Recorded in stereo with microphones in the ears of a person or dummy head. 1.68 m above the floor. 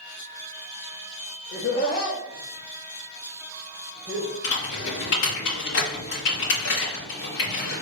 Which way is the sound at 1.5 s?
60° left (ahead or behind).